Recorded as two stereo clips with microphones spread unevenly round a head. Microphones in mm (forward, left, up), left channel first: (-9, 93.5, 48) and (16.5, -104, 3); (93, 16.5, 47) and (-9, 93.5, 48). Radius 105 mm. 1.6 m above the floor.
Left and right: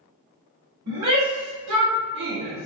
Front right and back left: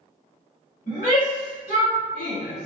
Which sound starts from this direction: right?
A shout, at 0.9 s.